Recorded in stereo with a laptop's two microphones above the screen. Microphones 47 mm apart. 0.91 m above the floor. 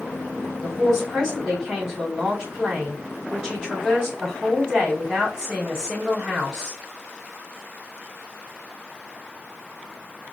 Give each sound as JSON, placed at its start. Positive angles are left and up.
{"t": 0.6, "sound": "a man speaking", "side_deg": -15, "distance_m": 2.5}